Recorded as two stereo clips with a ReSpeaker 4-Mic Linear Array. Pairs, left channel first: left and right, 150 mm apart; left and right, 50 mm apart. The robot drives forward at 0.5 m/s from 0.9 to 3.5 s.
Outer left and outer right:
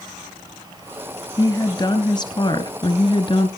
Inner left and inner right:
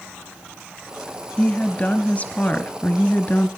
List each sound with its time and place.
1.4 s a woman speaking: 25° left (ahead or behind), 2 m; by 3.5 s 35° left (ahead or behind), 1.8 m